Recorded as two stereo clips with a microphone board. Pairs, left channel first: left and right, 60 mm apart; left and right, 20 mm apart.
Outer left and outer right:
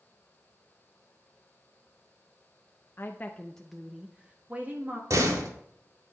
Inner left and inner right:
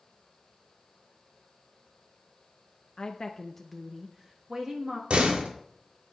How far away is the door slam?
About 1.8 m.